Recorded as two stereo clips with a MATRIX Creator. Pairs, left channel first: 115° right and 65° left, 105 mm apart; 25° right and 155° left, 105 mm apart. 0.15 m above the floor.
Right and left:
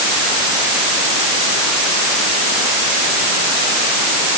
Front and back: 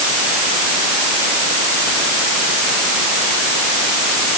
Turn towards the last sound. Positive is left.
No sound to turn to.